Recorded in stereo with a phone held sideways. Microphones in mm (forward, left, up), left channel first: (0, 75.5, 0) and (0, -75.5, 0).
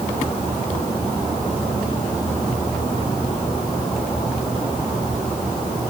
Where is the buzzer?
I don't hear a buzzer.